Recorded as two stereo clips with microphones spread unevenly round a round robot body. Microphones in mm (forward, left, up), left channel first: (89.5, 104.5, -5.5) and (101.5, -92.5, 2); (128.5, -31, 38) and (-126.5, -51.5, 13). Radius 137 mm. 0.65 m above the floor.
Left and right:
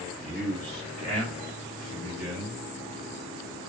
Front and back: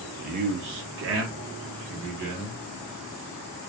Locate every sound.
0.2 s a man speaking: 175° right, 0.5 m; by 2.6 s 145° right, 1.7 m